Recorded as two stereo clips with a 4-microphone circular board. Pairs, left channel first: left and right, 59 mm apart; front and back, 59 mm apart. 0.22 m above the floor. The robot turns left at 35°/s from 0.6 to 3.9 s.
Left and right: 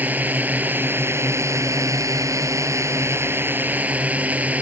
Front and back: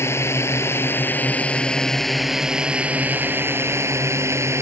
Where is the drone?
35° right; by 4.6 s 150° right.